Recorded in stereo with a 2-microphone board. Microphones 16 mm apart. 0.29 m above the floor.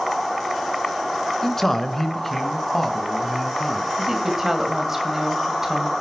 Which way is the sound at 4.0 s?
25° right (ahead or behind).